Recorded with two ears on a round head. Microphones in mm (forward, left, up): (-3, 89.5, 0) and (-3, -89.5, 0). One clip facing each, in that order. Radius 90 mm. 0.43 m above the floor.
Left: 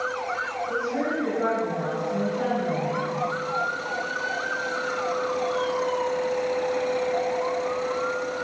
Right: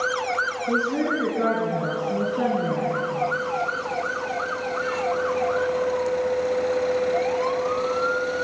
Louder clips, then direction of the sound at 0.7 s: Right 4 dB; 70° right (ahead or behind).